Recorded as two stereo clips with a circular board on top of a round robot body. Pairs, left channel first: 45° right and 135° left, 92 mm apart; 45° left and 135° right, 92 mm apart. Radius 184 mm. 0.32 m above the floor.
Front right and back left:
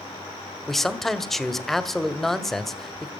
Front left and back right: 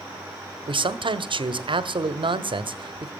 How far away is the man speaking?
About 1.6 m.